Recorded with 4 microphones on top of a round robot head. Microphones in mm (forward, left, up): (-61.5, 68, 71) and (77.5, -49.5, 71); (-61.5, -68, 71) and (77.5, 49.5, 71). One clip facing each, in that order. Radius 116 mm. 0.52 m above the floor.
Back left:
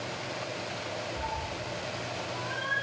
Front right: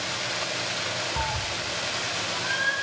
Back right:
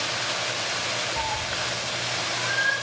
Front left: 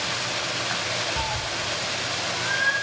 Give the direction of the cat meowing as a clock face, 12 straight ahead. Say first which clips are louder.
Front right 3 dB, even; 1 o'clock.